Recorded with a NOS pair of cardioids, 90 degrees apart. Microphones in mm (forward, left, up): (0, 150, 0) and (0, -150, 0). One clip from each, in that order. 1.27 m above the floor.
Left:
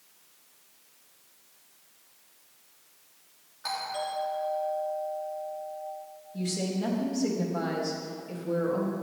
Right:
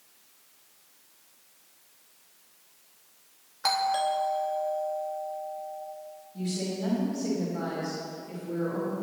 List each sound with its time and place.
3.6 s a doorbell: 65° right, 3 m
6.3 s a woman speaking: 50° left, 4.5 m